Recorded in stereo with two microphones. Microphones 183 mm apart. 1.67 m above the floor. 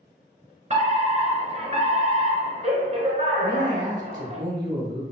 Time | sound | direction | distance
0.7 | a fire alarm | 40° right (ahead or behind) | 1.1 m
3.4 | a man speaking | 90° right | 1.6 m